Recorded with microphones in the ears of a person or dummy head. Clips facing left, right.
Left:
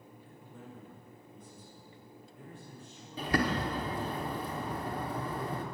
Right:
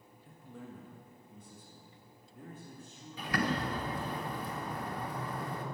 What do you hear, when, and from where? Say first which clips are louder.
0.2 s a man speaking: right 4 dB; 55° right (ahead or behind), 1.8 m; by 4.2 s 35° right (ahead or behind), 3.5 m
3.2 s a bird: left 3 dB; 25° left (ahead or behind), 1.4 m